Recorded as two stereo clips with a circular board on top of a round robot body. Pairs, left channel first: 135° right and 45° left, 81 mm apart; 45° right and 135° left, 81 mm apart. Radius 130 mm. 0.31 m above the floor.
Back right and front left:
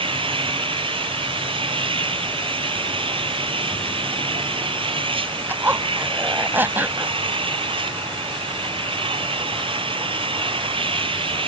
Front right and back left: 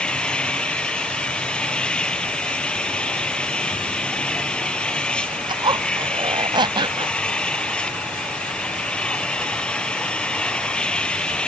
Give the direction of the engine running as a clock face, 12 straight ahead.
11 o'clock.